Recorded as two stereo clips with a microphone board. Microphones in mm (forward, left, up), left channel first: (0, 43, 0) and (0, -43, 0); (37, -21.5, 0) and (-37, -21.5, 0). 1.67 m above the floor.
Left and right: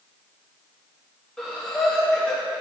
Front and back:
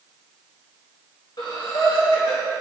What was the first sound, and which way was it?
Breathing, 5° left.